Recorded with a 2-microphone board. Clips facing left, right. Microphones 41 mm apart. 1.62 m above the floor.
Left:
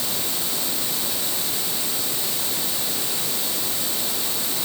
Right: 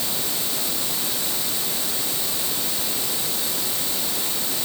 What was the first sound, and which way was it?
Only background noise.